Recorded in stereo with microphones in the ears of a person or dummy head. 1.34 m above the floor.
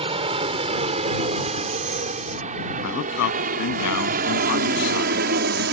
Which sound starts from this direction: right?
An aircraft, at 0.0 s.